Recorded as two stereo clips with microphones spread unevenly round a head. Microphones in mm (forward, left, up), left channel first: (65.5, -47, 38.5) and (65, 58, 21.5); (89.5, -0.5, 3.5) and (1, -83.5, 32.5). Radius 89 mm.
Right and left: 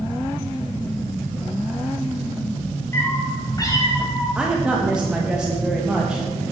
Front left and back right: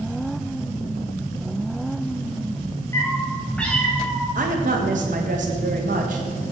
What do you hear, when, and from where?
2.9 s a cat meowing: 30° right, 3 m; by 4.2 s 50° right, 3.5 m
4.3 s a woman speaking: 175° left, 1.4 m